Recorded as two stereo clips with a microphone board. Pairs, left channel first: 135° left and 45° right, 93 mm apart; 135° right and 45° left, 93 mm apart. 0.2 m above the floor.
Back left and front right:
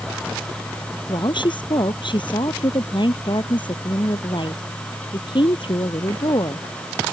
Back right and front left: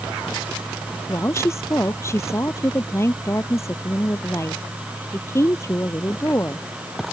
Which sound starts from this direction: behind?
A woman speaking, at 1.1 s.